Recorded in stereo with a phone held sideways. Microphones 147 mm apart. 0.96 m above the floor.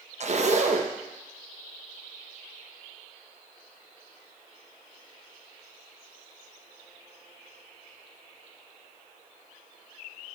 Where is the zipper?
50° right (ahead or behind), 0.9 m.